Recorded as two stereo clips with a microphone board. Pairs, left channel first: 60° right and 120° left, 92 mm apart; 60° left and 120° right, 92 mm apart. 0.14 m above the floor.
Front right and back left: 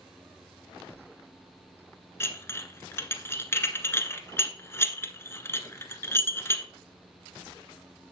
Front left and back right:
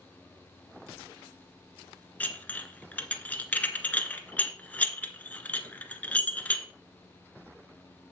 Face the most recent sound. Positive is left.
turn(degrees=-10)